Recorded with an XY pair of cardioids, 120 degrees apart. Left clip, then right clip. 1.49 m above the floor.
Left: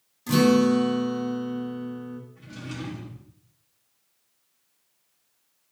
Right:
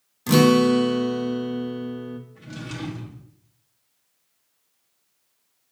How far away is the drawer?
About 1.8 m.